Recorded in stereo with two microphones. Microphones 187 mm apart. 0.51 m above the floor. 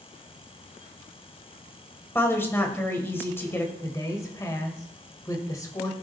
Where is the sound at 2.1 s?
10° left (ahead or behind), 1.9 m.